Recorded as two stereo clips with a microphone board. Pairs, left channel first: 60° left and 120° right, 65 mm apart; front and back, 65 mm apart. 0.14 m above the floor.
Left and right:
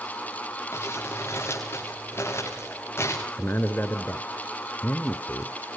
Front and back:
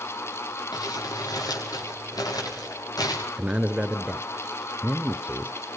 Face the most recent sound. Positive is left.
turn(degrees=110)